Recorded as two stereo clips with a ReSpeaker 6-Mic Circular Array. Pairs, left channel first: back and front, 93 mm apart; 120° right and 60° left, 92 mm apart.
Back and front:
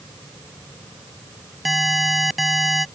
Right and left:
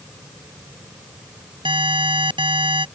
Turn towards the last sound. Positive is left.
turn(degrees=90)